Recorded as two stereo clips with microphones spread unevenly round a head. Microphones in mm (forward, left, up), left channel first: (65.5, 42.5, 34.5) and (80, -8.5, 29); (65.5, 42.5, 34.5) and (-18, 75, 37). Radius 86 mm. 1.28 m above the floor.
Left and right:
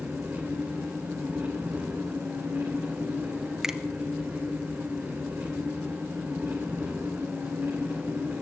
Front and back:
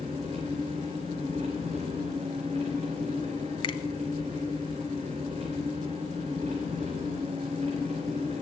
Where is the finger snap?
10° left, 1.2 m.